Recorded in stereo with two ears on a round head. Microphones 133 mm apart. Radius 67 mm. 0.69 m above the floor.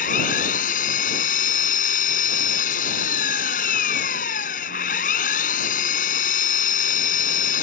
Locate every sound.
0.0 s an engine running: 60° left (ahead or behind)